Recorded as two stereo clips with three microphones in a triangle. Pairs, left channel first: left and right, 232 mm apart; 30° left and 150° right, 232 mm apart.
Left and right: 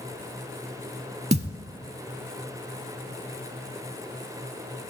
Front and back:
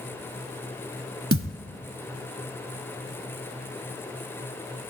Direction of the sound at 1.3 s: 145° right.